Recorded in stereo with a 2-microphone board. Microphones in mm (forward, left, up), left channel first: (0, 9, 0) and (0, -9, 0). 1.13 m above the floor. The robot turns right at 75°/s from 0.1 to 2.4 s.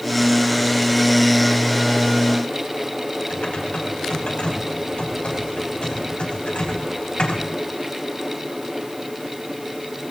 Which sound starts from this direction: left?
Typing on a keyboard, at 3.3 s.